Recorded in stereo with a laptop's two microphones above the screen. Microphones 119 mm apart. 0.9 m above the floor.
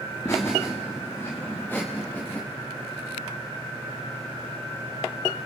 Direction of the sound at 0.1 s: 25° left (ahead or behind).